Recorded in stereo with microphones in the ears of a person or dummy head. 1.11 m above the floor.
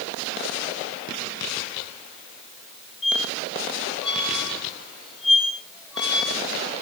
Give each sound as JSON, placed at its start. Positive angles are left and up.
{"t": 3.0, "sound": "a squeak", "side_deg": -5, "distance_m": 8.0}